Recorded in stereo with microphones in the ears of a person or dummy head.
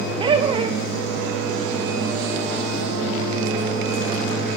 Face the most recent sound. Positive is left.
turn(degrees=-15)  # may be behind; listen again after turning